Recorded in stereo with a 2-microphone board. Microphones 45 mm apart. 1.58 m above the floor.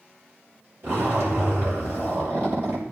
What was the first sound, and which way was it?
A zipper, 85° right.